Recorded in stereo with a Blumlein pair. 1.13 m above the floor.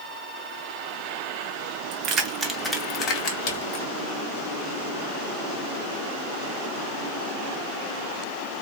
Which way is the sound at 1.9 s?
40° right.